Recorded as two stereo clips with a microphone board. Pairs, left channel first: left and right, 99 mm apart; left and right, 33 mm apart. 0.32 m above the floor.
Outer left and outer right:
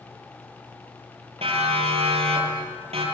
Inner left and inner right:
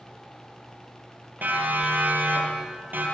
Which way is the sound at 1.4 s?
80° right.